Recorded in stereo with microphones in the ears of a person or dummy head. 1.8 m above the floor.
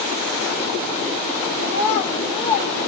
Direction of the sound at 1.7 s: 40° left (ahead or behind).